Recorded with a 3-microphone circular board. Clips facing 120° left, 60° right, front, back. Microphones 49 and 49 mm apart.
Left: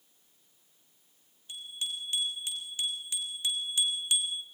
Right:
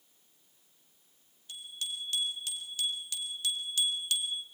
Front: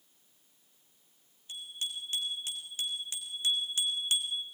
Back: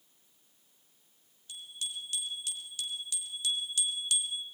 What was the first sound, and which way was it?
A bicycle bell, 55° left.